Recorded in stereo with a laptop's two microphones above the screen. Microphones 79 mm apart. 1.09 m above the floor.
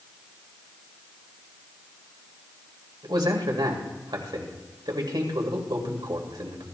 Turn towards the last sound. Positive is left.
turn(degrees=-75)  # may be behind; listen again after turning